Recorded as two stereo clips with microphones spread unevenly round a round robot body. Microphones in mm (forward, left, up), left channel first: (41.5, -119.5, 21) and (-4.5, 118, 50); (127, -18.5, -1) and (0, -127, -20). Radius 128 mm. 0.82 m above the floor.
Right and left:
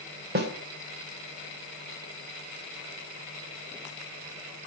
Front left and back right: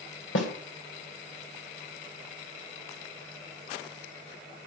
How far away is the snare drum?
About 3 m.